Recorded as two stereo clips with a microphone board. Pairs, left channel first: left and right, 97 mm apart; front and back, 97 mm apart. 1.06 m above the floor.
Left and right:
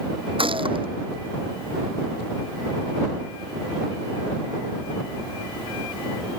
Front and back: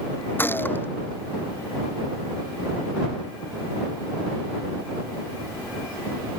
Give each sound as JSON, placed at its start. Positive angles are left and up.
{"t": 0.4, "sound": "a gunshot", "azimuth_deg": -70}